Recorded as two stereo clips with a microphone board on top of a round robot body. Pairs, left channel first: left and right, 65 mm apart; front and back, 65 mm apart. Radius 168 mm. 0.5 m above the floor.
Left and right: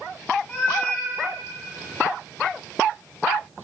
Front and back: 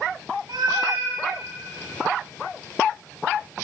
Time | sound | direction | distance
0.5 | a cat meowing | 150° left | 1.8 m